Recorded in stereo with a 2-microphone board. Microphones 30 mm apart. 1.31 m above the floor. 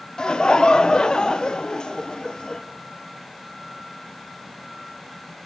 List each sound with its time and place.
0.2 s laughter: 30° left (ahead or behind), 0.7 m